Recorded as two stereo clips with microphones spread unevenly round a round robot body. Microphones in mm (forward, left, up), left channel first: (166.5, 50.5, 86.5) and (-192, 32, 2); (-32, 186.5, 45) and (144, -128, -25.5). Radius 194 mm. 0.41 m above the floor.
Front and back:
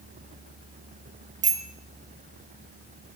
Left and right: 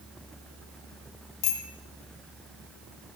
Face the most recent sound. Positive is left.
turn(degrees=115)